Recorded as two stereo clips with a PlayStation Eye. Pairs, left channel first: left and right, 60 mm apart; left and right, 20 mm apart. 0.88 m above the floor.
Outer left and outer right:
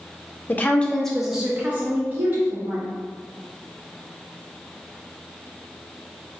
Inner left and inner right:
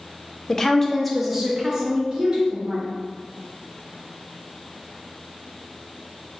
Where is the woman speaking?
35° left (ahead or behind), 0.7 m; by 2.9 s 40° right (ahead or behind), 1.5 m.